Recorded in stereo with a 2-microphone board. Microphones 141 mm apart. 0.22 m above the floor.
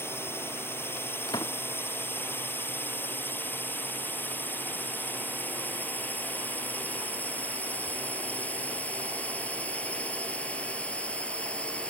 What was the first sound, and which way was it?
A drone, 15° left (ahead or behind).